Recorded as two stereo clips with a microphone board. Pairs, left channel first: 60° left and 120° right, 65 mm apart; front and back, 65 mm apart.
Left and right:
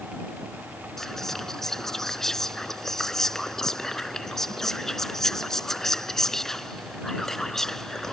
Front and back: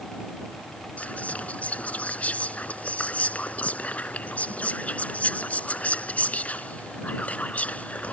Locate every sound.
1.0 s whispering: 10° right